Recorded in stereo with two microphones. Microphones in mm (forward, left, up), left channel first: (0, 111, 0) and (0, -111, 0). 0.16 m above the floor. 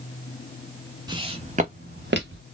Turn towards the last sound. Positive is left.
turn(degrees=-60)  # may be behind; listen again after turning